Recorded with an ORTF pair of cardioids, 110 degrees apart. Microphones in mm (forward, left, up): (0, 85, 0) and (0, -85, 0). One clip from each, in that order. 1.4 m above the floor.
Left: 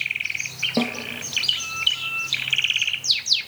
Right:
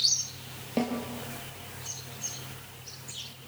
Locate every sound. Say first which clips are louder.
0.8 s a snare drum: left 3 dB; 35° left, 4.5 m